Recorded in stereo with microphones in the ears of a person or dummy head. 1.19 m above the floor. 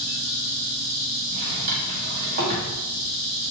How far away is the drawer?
About 1.1 m.